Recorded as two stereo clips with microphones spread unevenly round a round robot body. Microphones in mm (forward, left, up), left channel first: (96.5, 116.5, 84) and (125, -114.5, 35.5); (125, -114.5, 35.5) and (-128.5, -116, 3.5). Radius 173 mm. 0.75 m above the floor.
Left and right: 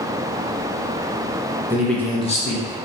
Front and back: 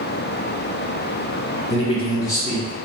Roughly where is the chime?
I don't hear a chime.